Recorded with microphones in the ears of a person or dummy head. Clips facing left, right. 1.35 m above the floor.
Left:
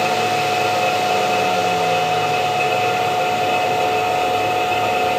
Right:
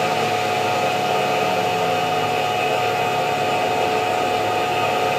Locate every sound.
0.0 s a machine running: 10° right (ahead or behind), 1.2 m